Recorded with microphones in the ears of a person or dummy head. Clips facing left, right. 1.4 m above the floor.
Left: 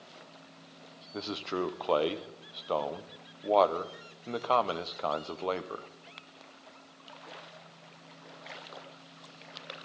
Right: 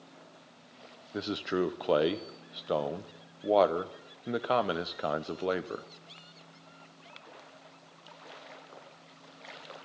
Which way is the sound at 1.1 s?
20° right (ahead or behind).